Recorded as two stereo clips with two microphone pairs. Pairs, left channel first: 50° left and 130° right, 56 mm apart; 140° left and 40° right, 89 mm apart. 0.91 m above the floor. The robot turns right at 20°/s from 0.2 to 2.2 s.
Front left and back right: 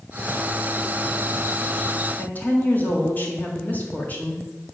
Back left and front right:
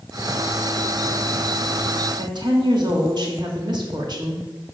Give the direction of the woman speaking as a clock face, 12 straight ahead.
12 o'clock.